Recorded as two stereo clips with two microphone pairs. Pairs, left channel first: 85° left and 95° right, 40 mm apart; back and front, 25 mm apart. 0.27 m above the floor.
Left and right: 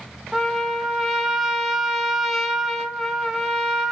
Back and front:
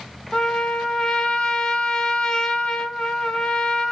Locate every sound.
0.3 s a trumpet: straight behind, 0.6 m